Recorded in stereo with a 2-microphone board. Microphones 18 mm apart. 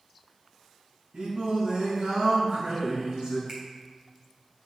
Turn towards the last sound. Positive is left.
turn(degrees=-50)  # may be behind; listen again after turning